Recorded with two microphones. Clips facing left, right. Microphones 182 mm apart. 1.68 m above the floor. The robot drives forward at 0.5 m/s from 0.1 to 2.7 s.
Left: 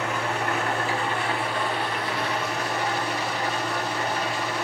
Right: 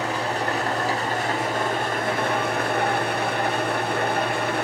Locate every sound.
0.0 s an engine running: 35° right (ahead or behind), 3 m; by 4.7 s 55° right (ahead or behind), 2 m